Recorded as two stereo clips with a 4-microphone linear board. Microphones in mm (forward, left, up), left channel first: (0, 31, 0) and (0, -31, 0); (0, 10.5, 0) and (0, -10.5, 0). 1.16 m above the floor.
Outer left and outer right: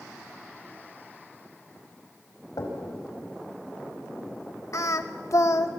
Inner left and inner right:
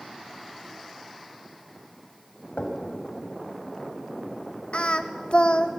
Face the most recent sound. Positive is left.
turn(degrees=55)  # may be behind; listen again after turning